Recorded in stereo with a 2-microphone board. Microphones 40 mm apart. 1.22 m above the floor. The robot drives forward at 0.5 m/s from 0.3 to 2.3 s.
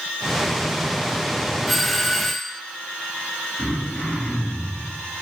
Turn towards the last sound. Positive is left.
turn(degrees=10)  # may be behind; listen again after turning